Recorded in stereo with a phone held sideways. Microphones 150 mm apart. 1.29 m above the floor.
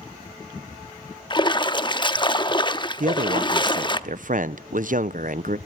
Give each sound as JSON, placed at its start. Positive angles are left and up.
{"t": 1.3, "sound": "a splash", "side_deg": 30, "distance_m": 0.8}
{"t": 3.0, "sound": "a man speaking", "side_deg": -60, "distance_m": 0.6}